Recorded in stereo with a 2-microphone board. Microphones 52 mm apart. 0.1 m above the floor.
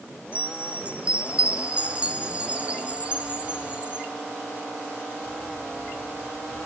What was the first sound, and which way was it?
A chime, 25° right (ahead or behind).